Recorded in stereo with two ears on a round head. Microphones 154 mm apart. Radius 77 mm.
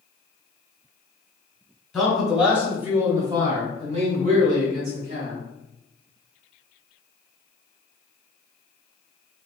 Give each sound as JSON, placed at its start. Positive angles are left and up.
{"t": 1.9, "sound": "a man speaking", "side_deg": 0, "distance_m": 2.0}